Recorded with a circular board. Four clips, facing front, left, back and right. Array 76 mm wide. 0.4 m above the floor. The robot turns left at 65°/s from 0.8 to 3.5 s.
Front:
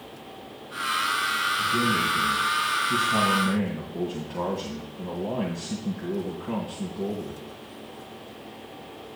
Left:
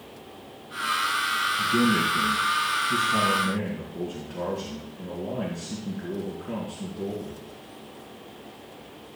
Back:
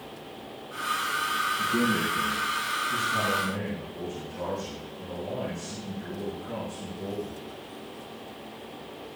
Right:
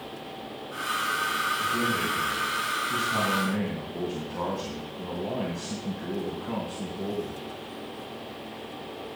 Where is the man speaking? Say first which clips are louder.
Left 4 dB, front 2 dB; 95° left, 2.5 m; by 7.4 s 30° right, 2.5 m.